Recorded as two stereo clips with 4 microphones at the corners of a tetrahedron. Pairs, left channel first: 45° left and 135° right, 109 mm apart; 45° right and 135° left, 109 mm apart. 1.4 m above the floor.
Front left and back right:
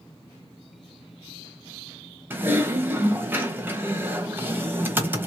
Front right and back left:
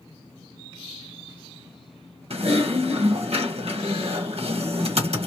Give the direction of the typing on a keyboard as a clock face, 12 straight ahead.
7 o'clock.